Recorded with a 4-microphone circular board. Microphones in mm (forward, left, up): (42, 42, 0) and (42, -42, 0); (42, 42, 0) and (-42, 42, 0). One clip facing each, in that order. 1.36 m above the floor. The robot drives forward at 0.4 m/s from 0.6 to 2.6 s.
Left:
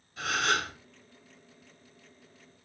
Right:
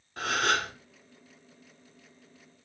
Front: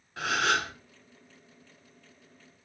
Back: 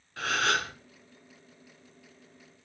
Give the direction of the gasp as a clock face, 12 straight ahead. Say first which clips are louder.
Right 1 dB, front 1 dB; 2 o'clock.